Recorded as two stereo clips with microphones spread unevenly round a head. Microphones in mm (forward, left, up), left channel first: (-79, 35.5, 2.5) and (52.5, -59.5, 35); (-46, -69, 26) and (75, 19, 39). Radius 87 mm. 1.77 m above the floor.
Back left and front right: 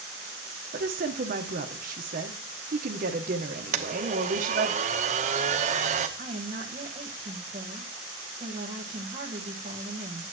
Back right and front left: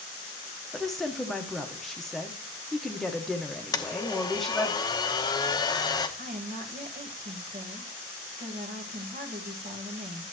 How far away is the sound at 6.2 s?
About 1.3 m.